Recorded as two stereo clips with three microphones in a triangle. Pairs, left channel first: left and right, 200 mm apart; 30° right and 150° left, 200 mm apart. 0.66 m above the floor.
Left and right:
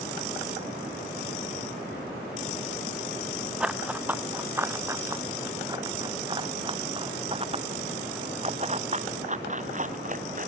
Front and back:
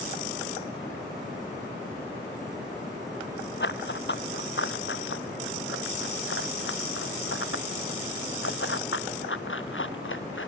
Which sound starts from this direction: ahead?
Running footsteps, at 3.6 s.